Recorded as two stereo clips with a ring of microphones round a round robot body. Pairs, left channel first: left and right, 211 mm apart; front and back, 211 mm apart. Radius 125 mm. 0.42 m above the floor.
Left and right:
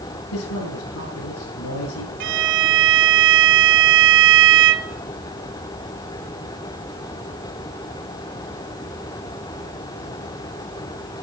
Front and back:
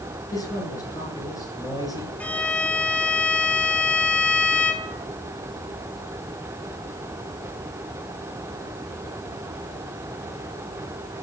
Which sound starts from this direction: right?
A violin, at 2.2 s.